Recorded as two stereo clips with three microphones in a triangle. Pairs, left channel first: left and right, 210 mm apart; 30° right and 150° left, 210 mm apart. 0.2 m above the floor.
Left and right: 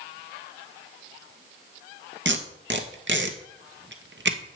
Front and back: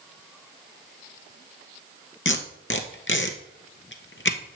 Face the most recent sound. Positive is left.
turn(degrees=-55)